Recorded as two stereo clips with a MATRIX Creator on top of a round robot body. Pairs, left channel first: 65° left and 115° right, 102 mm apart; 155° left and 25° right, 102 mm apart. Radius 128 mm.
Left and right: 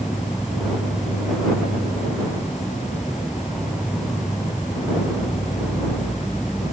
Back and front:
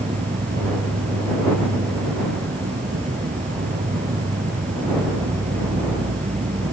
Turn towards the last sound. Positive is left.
turn(degrees=-25)